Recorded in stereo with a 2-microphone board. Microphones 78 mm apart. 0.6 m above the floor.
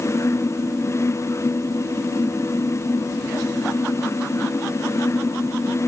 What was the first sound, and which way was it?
Only background noise.